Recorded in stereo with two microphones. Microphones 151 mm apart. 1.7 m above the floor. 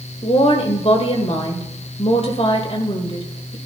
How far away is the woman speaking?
About 1.7 m.